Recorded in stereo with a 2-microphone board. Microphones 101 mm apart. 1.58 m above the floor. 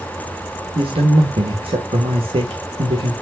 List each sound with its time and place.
0.8 s a man speaking: 65° right (ahead or behind), 2 m